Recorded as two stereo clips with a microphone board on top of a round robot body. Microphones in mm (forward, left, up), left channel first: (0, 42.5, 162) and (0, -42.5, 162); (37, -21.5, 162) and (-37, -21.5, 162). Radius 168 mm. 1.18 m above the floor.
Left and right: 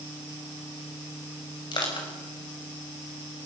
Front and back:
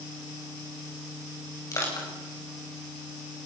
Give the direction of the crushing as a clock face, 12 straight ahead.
10 o'clock.